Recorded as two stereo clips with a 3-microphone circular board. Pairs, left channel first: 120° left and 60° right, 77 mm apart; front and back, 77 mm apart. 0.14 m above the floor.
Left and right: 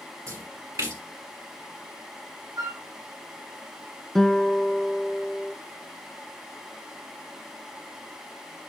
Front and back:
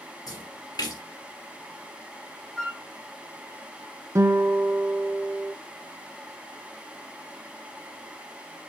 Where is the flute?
85° right, 1.1 m.